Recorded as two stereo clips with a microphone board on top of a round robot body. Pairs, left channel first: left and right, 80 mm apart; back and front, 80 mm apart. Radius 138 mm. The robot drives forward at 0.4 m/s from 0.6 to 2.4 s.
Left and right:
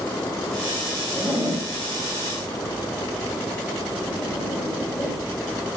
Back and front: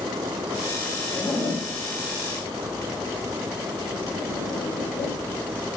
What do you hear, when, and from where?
1.1 s a zipper: 145° left, 2 m; by 5.2 s 150° left, 2.5 m